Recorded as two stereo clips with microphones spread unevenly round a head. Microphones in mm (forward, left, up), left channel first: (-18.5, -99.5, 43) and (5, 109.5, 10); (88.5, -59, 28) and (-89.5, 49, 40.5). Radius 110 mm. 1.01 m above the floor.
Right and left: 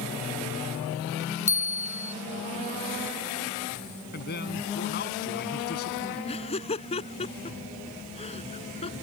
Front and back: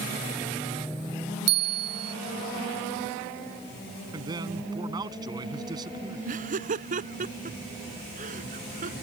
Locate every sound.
1.5 s a bell: 170° right
4.1 s a man speaking: 140° right
6.2 s laughter: 160° right